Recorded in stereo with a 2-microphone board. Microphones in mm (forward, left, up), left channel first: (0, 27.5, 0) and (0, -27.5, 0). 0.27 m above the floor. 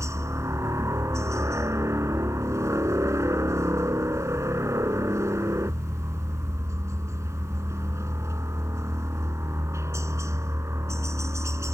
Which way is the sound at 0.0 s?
65° right (ahead or behind).